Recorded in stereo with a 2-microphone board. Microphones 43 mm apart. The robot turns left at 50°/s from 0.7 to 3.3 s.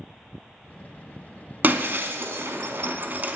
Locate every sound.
1.6 s breaking glass: 50° right (ahead or behind), 0.7 m; by 3.4 s 40° right (ahead or behind), 0.7 m